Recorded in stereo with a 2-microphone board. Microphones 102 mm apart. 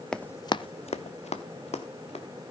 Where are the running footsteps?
5° left (ahead or behind), 0.6 m; by 2.2 s 75° left (ahead or behind), 1.8 m.